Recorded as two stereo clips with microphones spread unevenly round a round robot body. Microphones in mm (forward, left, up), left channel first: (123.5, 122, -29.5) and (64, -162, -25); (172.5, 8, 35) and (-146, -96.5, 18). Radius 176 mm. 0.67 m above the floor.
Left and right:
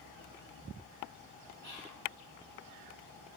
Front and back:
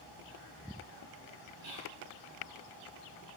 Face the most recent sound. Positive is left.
turn(degrees=-100)